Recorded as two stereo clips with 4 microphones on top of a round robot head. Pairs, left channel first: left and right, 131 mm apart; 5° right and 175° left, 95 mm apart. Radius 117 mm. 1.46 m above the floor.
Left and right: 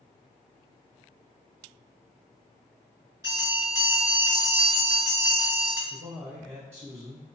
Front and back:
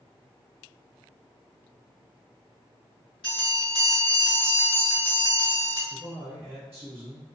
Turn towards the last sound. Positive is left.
turn(degrees=-115)